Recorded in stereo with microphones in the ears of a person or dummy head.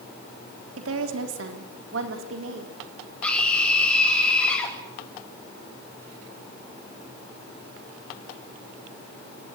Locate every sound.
0.8 s a woman speaking: 85° right, 3 m; by 2.8 s 70° right (ahead or behind), 3.5 m
3.2 s a scream: 5° left (ahead or behind), 7.5 m